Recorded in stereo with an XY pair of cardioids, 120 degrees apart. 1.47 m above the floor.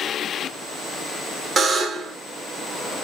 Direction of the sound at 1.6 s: 35° right.